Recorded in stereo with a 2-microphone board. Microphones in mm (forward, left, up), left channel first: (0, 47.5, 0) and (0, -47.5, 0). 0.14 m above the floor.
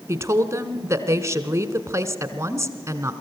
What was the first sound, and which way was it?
A woman speaking, 30° right (ahead or behind).